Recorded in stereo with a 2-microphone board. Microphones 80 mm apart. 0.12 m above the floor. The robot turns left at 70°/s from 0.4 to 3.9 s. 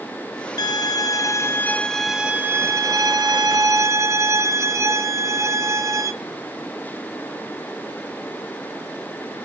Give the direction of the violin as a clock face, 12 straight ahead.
9 o'clock.